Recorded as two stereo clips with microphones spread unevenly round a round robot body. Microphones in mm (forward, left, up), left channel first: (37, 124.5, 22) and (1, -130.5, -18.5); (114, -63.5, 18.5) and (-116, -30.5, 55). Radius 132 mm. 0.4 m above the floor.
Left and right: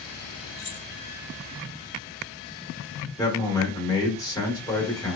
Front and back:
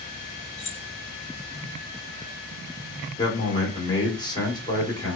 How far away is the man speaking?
About 0.9 m.